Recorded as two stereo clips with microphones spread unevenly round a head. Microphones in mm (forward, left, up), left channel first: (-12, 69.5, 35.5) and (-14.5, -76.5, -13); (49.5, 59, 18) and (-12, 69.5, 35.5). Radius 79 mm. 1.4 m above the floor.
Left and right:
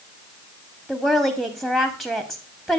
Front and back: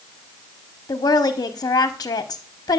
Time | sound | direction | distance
0.9 | a woman speaking | 5° right | 0.8 m